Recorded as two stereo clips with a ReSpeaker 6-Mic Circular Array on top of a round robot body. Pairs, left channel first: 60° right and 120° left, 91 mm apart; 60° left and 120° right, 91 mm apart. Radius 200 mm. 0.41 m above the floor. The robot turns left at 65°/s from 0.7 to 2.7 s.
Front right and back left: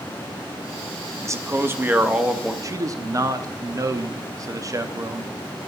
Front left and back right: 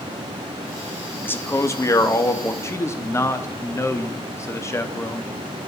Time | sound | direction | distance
1.2 | a man speaking | 110° left | 1.2 m
2.6 | a man speaking | 105° left | 0.9 m